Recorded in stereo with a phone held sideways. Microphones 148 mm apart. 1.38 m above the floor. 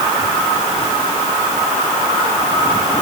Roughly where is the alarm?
I don't hear an alarm.